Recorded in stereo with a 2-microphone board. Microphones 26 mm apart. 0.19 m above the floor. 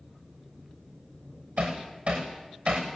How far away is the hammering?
About 5.5 m.